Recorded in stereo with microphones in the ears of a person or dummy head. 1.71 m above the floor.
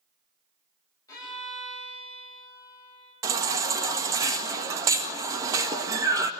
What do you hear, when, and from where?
1.1 s a violin: 25° left (ahead or behind), 9.5 m
3.2 s a baby crying: 20° right (ahead or behind), 1.4 m